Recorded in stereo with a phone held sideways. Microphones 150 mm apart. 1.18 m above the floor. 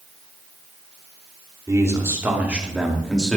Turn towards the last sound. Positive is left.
turn(degrees=10)  # may be behind; listen again after turning